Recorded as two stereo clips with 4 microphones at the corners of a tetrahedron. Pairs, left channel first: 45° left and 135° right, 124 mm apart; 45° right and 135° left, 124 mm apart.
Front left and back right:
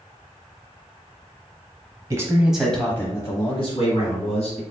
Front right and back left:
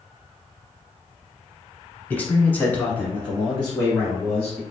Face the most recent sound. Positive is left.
turn(degrees=40)